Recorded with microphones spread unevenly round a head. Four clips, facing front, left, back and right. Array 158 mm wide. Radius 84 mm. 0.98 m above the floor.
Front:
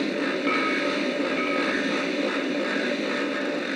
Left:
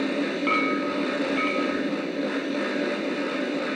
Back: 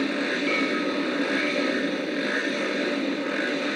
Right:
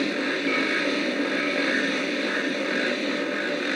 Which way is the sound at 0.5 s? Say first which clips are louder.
Left 1 dB, front 1 dB; 65° left.